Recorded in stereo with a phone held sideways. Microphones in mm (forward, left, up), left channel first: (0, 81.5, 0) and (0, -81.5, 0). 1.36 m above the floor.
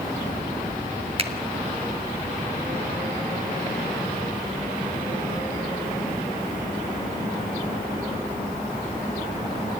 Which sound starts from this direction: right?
A finger snap, at 1.2 s.